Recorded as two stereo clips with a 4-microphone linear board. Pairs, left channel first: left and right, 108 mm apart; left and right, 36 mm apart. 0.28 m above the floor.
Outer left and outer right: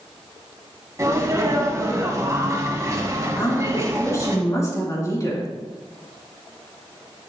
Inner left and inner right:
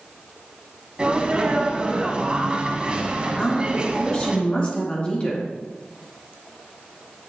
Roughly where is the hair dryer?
No hair dryer in this recording.